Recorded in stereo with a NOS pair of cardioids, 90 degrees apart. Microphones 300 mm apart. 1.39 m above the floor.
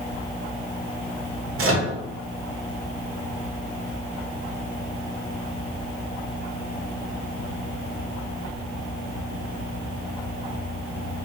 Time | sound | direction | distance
1.6 | a microwave | 45° right | 0.9 m